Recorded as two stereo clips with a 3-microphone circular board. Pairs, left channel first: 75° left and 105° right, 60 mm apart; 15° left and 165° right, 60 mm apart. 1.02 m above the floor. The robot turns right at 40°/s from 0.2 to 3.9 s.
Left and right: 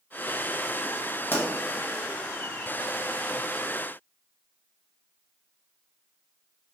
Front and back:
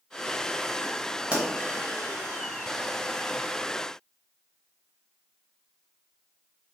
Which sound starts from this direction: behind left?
A pop, at 1.3 s.